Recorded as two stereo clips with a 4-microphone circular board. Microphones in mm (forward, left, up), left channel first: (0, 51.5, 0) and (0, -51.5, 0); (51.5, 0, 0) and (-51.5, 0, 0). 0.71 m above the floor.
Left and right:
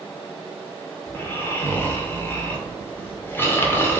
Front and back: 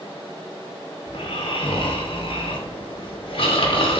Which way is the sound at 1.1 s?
20° left.